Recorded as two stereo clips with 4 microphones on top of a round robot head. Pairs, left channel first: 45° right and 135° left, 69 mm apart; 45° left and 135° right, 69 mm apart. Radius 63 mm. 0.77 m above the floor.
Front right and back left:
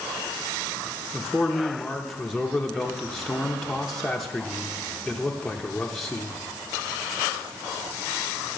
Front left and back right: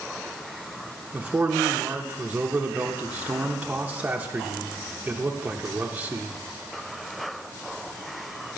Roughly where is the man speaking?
Behind right.